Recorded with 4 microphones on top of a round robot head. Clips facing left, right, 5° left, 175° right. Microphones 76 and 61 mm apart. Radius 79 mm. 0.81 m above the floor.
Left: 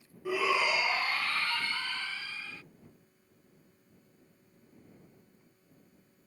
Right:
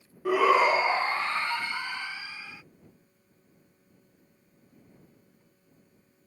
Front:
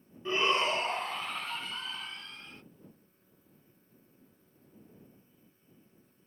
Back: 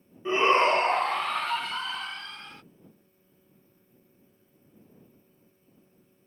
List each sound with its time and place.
0.2 s a shout: 105° right; by 2.6 s 170° right